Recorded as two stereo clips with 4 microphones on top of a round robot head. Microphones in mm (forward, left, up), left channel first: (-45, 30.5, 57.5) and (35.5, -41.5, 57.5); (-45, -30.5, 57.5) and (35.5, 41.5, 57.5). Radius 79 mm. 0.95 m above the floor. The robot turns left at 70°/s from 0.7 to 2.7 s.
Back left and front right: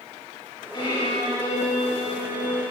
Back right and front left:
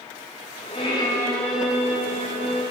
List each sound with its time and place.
0.7 s a violin: 175° right, 5 m; by 2.6 s 55° left, 5 m